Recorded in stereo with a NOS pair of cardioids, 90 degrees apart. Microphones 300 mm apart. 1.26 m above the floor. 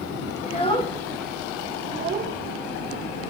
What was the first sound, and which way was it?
A child speaking, 25° left.